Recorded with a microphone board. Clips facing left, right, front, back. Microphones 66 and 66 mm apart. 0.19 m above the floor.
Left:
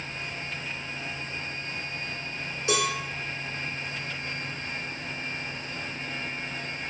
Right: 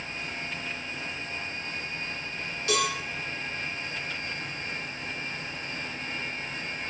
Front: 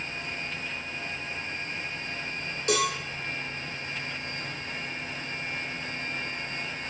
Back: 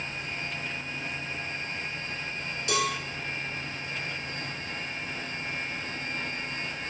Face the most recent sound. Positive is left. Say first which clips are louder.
# left 1 dB, front 2 dB
turn(degrees=30)